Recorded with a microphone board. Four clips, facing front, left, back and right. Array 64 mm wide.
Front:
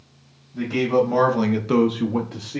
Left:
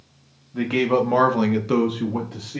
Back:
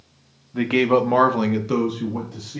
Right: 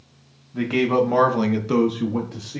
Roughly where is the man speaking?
Behind.